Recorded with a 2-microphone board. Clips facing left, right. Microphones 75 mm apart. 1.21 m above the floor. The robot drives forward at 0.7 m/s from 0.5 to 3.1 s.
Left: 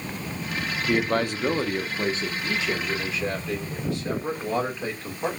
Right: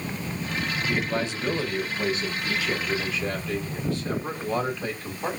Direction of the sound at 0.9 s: 65° left (ahead or behind).